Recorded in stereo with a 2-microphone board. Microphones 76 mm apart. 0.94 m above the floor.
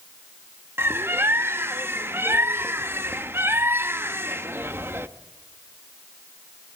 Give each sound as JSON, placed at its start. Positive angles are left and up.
{"t": 0.8, "sound": "a bird", "side_deg": -30, "distance_m": 1.0}